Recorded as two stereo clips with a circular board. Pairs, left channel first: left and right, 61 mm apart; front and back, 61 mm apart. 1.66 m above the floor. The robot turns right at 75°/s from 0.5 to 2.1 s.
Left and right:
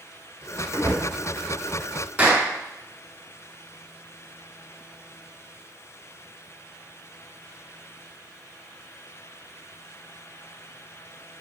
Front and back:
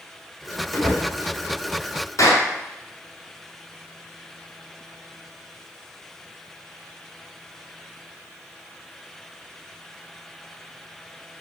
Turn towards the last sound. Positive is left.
turn(degrees=-30)